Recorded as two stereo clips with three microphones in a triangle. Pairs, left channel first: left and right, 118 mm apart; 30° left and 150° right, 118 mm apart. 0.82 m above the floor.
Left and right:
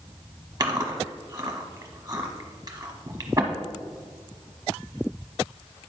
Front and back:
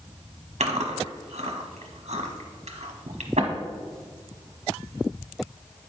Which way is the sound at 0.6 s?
145° right.